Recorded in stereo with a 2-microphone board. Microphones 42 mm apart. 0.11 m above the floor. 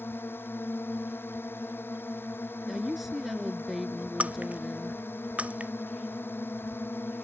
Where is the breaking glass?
35° right (ahead or behind).